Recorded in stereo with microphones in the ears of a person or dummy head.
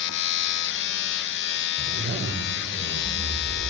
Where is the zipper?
40° right (ahead or behind), 5 m.